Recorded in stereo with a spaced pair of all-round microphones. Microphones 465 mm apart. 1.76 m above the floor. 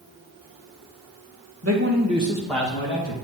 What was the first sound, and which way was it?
A man speaking, 35° right (ahead or behind).